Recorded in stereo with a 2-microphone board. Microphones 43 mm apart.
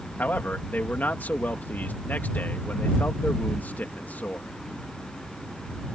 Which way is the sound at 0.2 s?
45° left (ahead or behind).